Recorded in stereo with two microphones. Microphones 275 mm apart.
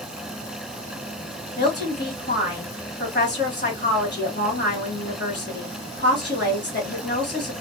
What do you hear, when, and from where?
1.6 s a woman speaking: 40° left (ahead or behind), 1.8 m